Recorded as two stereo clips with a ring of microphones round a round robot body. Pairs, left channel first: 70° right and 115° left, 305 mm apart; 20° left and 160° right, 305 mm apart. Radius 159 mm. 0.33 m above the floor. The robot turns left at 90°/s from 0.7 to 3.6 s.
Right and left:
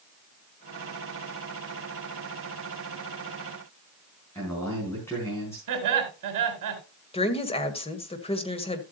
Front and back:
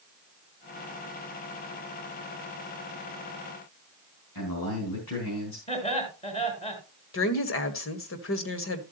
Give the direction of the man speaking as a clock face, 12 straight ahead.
12 o'clock.